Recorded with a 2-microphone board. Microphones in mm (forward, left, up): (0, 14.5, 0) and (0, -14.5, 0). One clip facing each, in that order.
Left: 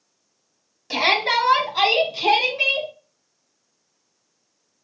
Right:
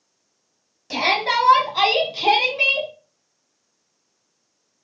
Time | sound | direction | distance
0.9 | a shout | 15° left (ahead or behind) | 1.1 m